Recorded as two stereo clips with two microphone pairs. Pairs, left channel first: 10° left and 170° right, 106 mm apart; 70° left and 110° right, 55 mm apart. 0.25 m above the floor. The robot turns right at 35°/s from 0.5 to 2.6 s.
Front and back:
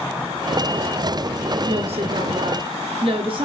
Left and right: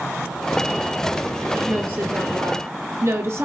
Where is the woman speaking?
175° right, 3.5 m; by 3.5 s 140° right, 3.5 m.